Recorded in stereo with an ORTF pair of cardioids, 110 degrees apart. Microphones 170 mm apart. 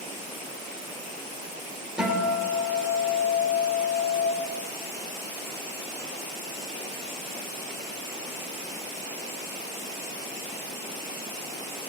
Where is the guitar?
5° right, 4 m.